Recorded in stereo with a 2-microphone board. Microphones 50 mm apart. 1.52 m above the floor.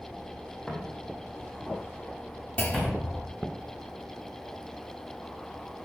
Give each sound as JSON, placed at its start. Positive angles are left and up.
{"t": 0.7, "sound": "footsteps", "side_deg": 5, "distance_m": 5.0}
{"t": 2.6, "sound": "a clunk", "side_deg": 35, "distance_m": 2.0}